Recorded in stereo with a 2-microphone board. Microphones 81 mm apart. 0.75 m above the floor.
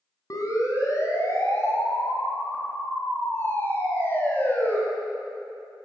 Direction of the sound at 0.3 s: 45° left (ahead or behind).